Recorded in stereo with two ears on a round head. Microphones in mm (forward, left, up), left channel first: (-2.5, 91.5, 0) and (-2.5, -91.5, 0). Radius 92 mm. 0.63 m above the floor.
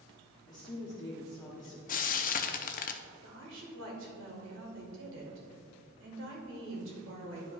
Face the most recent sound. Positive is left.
turn(degrees=-65)  # may be behind; listen again after turning